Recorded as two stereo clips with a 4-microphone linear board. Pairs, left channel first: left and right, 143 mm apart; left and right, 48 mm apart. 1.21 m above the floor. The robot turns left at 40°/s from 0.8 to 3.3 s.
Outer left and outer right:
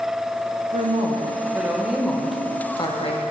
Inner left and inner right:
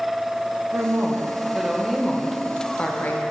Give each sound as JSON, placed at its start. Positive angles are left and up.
{"t": 0.7, "sound": "a woman speaking", "azimuth_deg": -130, "distance_m": 0.8}